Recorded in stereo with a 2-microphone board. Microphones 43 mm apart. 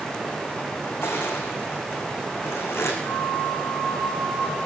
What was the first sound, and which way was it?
Crushing, 80° left.